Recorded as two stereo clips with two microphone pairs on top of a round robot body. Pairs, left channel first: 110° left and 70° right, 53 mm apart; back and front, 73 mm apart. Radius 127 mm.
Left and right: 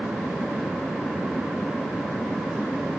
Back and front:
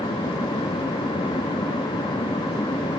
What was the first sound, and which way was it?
Only background noise.